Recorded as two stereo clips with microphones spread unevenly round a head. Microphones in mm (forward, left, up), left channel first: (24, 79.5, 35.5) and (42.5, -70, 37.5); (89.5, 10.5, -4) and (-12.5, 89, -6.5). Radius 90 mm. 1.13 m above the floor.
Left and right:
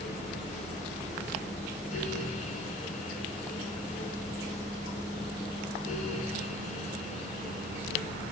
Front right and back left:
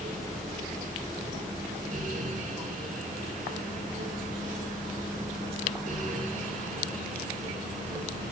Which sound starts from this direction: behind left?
A fan, at 0.0 s.